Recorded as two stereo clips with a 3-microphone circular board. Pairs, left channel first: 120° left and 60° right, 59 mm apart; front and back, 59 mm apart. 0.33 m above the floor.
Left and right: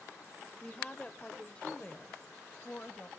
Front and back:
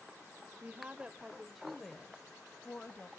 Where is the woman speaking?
Straight behind, 1.2 m; by 3.1 s 60° left, 1.8 m.